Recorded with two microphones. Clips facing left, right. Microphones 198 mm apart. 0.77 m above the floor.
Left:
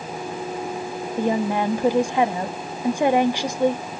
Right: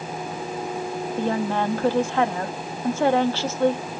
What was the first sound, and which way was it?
A woman speaking, 15° left (ahead or behind).